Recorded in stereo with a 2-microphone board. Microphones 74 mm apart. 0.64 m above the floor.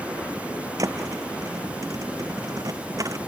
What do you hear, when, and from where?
0.8 s a thud: 50° right (ahead or behind)